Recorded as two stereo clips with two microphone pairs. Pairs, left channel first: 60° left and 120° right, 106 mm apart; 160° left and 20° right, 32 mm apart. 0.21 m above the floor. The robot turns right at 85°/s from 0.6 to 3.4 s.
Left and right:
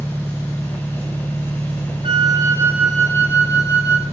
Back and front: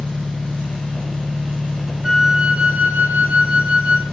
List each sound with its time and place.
0.0 s an engine running: 155° left, 0.9 m; by 4.1 s 35° left, 0.9 m
2.0 s a flute: 100° right, 3 m; by 4.0 s 15° left, 3 m